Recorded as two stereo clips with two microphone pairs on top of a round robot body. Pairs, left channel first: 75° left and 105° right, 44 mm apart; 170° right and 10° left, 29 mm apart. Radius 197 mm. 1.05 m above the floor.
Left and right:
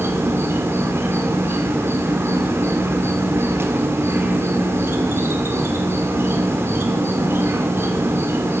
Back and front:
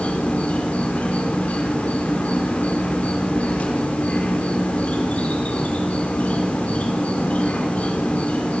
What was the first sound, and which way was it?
An insect, 130° right.